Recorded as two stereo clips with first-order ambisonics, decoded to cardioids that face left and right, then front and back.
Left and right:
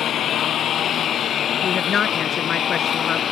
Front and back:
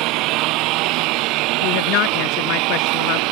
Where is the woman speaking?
25° left.